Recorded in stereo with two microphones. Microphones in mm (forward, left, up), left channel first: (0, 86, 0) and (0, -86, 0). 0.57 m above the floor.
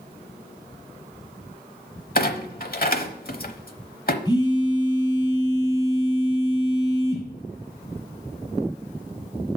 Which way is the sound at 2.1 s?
60° left (ahead or behind).